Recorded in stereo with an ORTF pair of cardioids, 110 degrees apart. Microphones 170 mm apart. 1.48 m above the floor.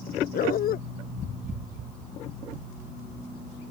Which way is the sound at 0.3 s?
60° left.